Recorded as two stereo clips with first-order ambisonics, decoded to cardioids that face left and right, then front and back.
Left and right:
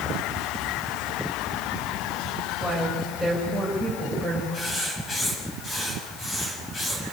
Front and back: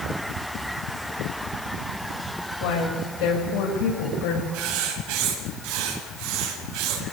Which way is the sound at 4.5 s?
165° left.